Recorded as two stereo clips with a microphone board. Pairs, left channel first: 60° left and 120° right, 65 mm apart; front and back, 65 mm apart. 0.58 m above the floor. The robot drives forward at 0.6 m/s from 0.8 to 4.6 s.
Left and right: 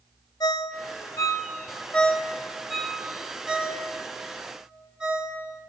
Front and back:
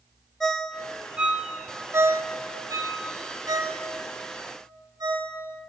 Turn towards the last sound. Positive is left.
turn(degrees=165)